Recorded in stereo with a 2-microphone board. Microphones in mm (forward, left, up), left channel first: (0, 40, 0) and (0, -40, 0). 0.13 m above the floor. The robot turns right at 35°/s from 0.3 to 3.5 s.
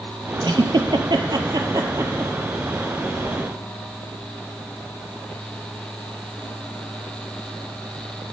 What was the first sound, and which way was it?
A giggle, 75° right (ahead or behind).